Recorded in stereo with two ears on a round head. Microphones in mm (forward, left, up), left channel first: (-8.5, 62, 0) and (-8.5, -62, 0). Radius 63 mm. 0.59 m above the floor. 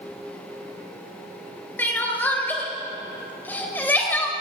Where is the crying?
15° left (ahead or behind), 3.5 m.